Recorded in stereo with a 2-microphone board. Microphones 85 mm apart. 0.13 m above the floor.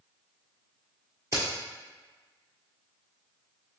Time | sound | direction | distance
1.3 | a crack | 35° right (ahead or behind) | 1.2 m